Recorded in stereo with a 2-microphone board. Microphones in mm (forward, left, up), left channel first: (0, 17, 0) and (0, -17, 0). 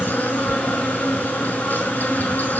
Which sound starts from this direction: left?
An insect, at 0.0 s.